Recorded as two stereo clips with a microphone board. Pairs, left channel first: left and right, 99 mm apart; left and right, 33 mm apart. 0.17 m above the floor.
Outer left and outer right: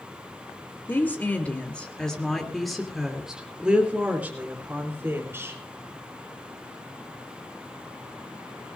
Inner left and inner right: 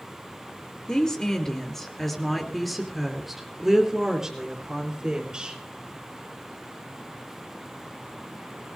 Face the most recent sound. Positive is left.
turn(degrees=-25)  # may be behind; listen again after turning